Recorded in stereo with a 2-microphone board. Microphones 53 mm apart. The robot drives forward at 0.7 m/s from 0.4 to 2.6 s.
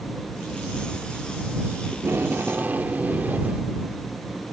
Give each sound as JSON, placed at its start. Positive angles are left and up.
{"t": 1.9, "sound": "tape being pulled", "side_deg": -45}